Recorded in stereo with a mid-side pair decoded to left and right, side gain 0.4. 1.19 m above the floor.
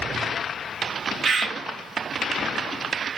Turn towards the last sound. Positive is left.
turn(degrees=-50)